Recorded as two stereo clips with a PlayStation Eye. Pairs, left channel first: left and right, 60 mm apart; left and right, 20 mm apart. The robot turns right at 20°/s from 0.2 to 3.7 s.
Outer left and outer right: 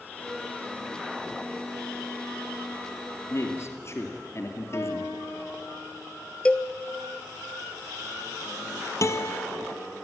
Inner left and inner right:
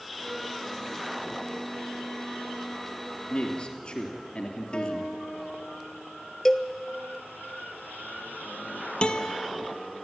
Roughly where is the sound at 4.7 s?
Left.